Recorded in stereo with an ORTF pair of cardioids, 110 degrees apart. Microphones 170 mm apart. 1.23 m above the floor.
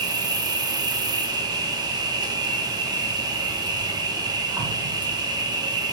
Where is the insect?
25° right, 0.8 m.